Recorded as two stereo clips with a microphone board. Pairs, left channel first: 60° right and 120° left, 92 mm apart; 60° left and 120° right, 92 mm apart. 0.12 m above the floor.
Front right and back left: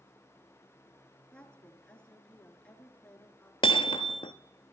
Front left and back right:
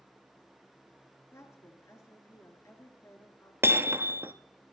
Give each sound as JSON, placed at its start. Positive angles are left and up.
{"t": 1.3, "sound": "a woman speaking", "azimuth_deg": 15, "distance_m": 1.7}
{"t": 3.6, "sound": "hammering", "azimuth_deg": -60, "distance_m": 0.7}